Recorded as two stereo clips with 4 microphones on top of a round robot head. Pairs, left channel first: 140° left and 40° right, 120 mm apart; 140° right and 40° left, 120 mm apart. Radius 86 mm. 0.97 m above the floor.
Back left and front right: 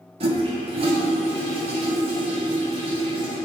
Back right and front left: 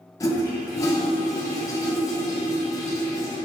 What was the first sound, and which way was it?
A toilet flushing, 80° right.